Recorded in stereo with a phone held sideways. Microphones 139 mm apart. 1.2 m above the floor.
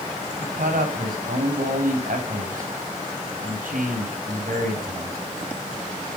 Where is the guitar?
I don't hear a guitar.